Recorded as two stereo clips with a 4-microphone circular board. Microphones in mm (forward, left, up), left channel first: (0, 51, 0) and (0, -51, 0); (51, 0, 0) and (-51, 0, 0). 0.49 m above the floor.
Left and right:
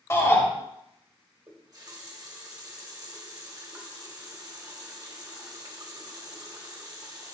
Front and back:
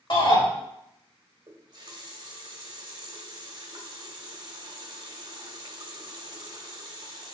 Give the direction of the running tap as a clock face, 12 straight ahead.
5 o'clock.